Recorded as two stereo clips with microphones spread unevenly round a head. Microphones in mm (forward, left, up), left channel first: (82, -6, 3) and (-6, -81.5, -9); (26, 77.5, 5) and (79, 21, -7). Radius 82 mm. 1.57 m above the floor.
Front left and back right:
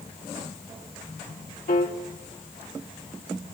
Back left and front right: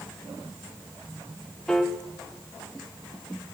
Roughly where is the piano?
Ahead left.